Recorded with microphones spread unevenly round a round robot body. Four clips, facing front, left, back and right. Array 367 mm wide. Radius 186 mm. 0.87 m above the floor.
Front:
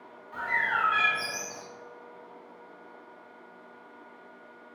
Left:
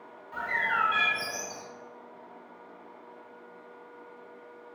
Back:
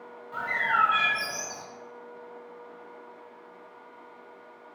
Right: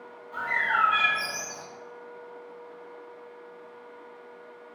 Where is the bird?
130° left, 1.0 m.